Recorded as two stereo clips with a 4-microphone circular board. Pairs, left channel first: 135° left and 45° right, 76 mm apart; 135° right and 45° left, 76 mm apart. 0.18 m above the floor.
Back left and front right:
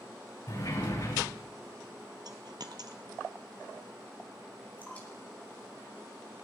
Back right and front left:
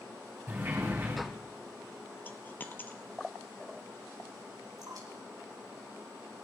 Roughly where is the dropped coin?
Right.